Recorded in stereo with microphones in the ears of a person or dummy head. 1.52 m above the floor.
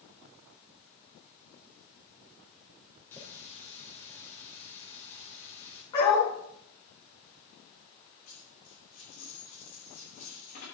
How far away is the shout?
No shout in this recording.